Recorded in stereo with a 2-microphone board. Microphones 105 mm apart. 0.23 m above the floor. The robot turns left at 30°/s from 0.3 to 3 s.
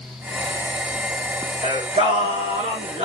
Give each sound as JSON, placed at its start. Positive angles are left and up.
{"t": 1.6, "sound": "singing", "azimuth_deg": -70, "distance_m": 5.0}